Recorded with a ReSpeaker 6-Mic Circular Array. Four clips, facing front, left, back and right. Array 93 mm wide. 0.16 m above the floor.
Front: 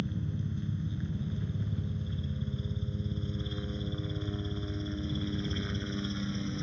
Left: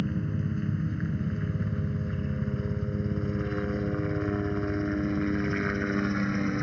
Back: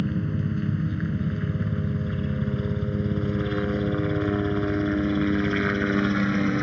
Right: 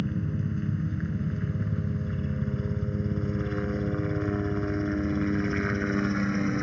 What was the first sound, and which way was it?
A helicopter, 175° left.